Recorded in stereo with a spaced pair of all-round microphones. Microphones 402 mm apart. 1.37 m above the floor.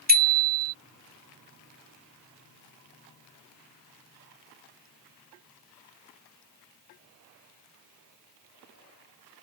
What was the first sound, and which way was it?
A bicycle bell, 20° right (ahead or behind).